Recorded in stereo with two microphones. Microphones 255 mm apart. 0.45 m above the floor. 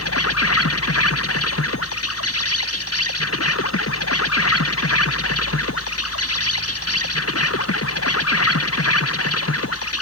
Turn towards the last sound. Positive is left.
turn(degrees=65)  # may be behind; listen again after turning